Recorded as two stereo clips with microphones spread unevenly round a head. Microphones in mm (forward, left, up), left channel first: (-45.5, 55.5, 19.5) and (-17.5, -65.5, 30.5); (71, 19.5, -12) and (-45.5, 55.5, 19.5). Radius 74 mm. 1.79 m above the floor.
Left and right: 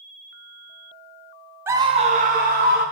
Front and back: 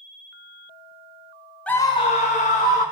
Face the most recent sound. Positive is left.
turn(degrees=-60)